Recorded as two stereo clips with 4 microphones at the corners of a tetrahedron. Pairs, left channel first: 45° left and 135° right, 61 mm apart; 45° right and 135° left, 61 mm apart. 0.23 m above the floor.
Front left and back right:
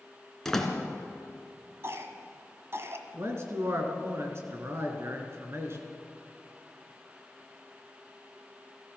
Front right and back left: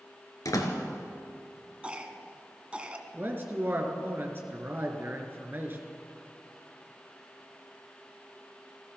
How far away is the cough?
About 1.6 m.